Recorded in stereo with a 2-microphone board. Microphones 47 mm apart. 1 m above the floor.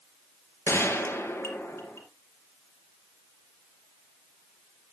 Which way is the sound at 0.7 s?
60° left (ahead or behind).